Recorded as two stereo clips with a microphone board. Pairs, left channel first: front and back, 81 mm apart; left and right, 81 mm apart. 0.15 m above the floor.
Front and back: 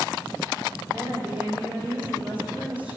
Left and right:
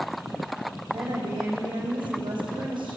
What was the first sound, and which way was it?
A woman speaking, 105° right.